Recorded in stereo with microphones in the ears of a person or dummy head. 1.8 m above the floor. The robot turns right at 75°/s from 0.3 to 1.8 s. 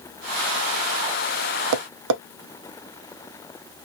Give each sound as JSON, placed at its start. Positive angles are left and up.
{"t": 1.7, "sound": "tapping", "side_deg": -75, "distance_m": 0.9}